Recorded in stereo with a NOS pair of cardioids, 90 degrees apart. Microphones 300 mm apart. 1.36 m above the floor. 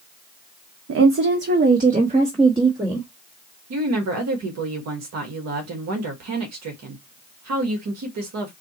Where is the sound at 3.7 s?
60° right, 1.6 m.